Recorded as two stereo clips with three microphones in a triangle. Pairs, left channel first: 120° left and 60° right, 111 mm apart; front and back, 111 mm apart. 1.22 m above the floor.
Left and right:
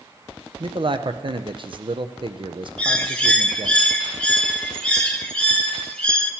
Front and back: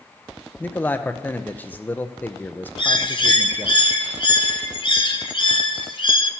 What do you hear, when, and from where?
0.6 s a man speaking: 70° right, 0.6 m
2.8 s a bird: 40° left, 0.7 m